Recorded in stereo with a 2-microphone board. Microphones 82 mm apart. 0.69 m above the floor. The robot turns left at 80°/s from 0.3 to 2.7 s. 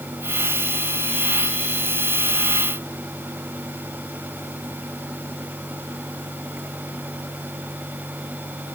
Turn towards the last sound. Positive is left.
No sound to turn to.